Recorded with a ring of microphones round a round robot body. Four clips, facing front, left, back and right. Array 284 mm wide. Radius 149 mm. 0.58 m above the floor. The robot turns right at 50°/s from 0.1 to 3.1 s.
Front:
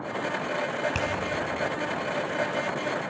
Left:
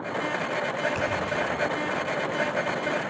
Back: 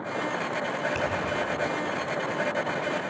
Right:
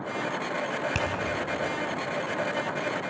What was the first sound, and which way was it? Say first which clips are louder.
A finger snap: left 2 dB, back 1 dB; 65° right.